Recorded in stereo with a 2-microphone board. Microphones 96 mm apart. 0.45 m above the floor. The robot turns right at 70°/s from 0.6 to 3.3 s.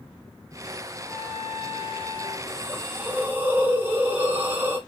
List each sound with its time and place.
1.0 s a trumpet: 175° left, 2 m; by 2.4 s 85° right, 2 m
2.5 s a hiss: 95° right, 1.5 m; by 4.8 s 35° right, 1.5 m